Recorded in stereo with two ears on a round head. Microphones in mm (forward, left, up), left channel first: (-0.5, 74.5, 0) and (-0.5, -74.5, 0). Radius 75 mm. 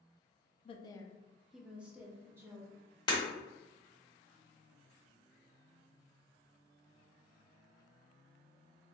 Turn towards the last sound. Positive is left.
turn(degrees=30)  # may be behind; listen again after turning